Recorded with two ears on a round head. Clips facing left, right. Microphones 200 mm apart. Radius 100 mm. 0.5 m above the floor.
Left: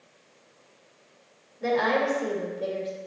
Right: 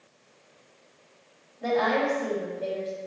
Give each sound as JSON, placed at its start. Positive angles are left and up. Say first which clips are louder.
{"t": 1.6, "sound": "a woman speaking", "louder": "even", "side_deg": 40, "distance_m": 2.5}